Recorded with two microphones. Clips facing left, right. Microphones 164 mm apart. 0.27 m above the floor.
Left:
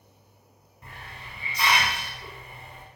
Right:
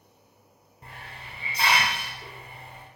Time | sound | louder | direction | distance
0.8 | a hiss | even | 30° right (ahead or behind) | 0.6 m